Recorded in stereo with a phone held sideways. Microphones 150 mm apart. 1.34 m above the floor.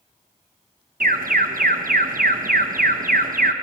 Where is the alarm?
65° right (ahead or behind), 1.2 m.